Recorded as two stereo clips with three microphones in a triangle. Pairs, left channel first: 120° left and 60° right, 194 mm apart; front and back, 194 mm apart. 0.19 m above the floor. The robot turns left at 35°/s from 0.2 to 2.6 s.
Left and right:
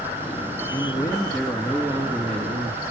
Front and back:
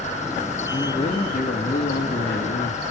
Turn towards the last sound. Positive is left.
turn(degrees=-5)